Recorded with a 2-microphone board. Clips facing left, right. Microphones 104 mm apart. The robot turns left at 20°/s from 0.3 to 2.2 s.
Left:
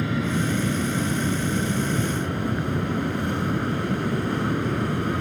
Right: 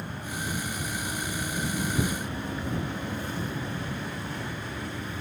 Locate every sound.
0.0 s an aircraft: 100° left; by 5.2 s 65° left